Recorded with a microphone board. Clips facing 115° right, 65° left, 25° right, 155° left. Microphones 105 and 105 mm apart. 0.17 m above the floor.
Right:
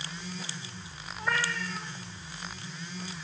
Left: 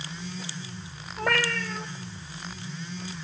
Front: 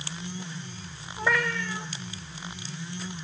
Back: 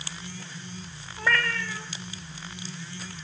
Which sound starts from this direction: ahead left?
A cat meowing, at 1.2 s.